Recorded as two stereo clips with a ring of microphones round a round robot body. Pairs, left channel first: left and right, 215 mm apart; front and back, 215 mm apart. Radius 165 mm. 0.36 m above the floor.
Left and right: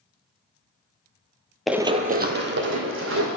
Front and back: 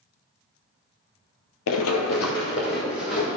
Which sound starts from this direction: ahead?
Running footsteps, at 1.7 s.